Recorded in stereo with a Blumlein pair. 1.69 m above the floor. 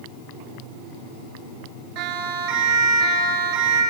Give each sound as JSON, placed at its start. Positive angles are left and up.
{"t": 1.9, "sound": "a siren", "azimuth_deg": -45, "distance_m": 9.5}